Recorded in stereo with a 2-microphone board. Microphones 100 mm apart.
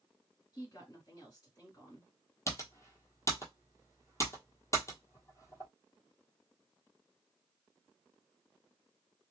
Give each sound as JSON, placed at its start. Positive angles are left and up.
{"t": 0.5, "sound": "a woman speaking", "side_deg": 35, "distance_m": 1.9}
{"t": 2.5, "sound": "typing on a keyboard", "side_deg": 30, "distance_m": 1.0}